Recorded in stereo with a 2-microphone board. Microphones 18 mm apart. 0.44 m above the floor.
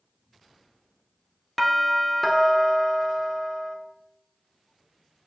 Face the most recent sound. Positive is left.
turn(degrees=10)  # may be behind; listen again after turning